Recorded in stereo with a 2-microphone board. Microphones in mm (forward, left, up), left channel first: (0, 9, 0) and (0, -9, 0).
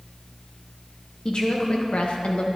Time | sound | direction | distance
1.2 | a woman speaking | 55° left (ahead or behind) | 1.7 m